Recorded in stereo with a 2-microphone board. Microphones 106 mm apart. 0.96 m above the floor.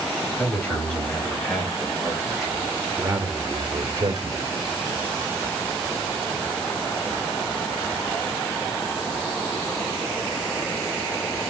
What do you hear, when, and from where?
0.4 s a man speaking: 15° left (ahead or behind), 5.5 m; by 4.5 s 45° right (ahead or behind), 3 m